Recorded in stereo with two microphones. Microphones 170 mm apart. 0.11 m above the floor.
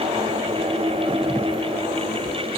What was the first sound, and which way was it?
Only background noise.